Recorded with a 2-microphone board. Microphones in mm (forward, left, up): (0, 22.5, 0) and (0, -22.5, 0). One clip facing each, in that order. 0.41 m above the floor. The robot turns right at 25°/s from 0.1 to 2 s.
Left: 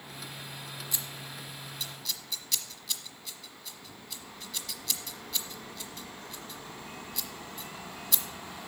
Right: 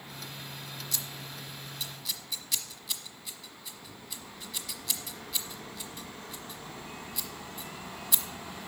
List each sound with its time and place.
0.9 s scissors: 20° left (ahead or behind), 1.0 m; by 8.2 s 5° right (ahead or behind), 1.0 m